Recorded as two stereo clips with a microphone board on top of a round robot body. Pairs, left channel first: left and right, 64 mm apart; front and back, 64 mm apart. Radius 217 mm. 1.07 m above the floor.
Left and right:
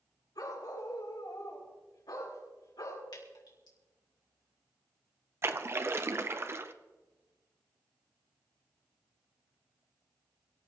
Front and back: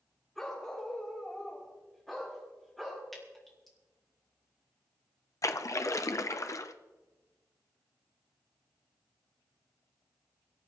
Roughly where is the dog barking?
Left.